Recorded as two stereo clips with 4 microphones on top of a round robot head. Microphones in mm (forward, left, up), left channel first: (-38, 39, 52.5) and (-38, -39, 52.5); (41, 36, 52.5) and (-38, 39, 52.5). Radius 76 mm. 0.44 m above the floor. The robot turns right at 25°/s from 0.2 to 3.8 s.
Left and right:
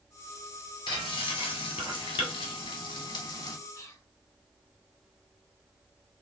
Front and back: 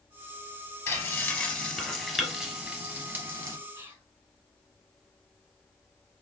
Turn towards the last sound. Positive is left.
turn(degrees=120)